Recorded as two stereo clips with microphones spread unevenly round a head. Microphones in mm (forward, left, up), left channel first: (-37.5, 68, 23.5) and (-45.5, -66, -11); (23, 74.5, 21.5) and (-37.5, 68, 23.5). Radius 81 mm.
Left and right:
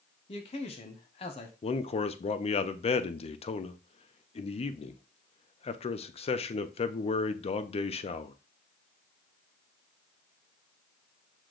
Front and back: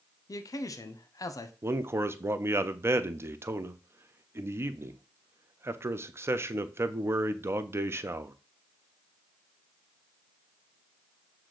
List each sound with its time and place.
0.3 s a man speaking: 25° left, 0.7 m
1.6 s a man speaking: 135° left, 0.6 m